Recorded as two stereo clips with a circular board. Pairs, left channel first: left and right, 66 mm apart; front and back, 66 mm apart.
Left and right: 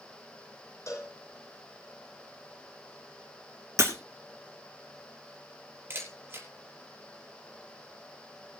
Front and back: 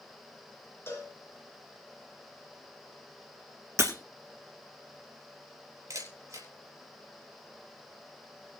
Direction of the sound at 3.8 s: 135° right.